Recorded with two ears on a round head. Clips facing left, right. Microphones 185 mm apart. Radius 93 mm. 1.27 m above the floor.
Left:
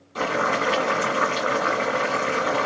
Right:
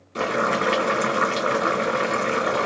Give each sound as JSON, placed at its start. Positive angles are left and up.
{"t": 0.1, "sound": "boiling", "side_deg": -30, "distance_m": 1.8}